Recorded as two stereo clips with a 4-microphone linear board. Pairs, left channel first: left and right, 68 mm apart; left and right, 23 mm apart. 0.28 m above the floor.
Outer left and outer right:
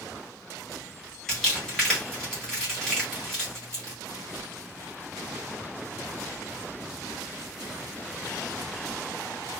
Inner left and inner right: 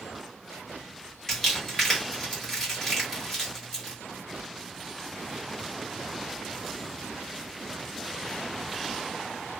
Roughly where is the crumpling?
Centre.